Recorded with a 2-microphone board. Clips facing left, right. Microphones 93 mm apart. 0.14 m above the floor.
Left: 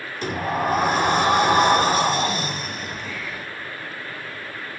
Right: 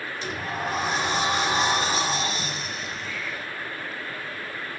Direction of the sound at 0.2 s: 50° left (ahead or behind).